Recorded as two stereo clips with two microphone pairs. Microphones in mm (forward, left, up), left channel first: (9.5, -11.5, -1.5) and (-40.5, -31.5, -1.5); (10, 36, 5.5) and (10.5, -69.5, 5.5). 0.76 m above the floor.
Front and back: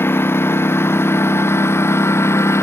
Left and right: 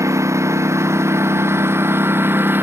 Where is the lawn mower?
25° right; by 2.6 s 20° right.